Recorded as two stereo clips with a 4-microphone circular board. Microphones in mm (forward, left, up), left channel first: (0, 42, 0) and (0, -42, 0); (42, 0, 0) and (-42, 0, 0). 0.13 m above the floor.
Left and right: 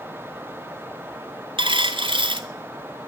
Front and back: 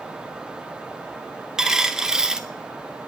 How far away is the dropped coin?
About 0.7 m.